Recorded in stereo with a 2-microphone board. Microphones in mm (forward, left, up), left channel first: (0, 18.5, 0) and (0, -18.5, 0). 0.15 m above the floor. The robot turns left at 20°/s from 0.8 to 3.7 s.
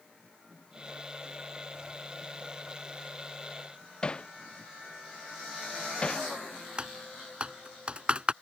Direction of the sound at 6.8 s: 30° right (ahead or behind).